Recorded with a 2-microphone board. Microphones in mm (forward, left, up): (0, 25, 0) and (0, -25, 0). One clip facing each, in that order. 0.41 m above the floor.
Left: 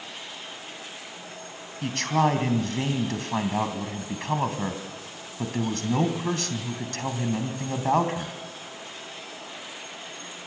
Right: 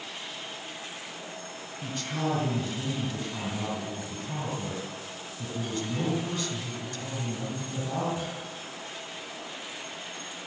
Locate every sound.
1.8 s a man speaking: 70° left (ahead or behind), 3 m